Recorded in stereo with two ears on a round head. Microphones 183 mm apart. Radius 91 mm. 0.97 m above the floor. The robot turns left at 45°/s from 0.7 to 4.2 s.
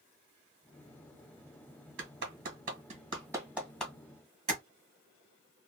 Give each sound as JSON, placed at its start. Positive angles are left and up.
{"t": 2.0, "sound": "a clap", "side_deg": -60, "distance_m": 1.1}
{"t": 4.5, "sound": "tapping", "side_deg": -30, "distance_m": 1.0}